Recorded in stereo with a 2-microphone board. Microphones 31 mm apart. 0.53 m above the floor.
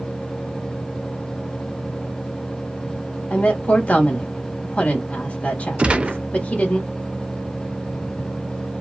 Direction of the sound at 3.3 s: 50° left (ahead or behind).